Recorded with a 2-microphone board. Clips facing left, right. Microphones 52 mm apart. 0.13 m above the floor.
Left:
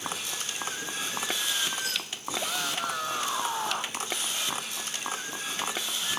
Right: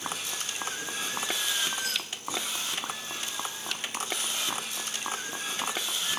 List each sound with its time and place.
2.4 s a shout: 70° left (ahead or behind); by 4.0 s 60° left (ahead or behind)